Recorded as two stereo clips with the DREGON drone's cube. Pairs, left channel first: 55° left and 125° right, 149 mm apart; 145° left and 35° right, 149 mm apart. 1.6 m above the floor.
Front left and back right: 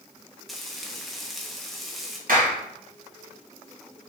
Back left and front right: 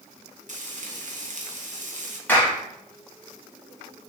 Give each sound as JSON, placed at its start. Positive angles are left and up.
{"t": 0.5, "sound": "frying", "azimuth_deg": -35, "distance_m": 1.3}
{"t": 2.3, "sound": "a clap", "azimuth_deg": -135, "distance_m": 2.0}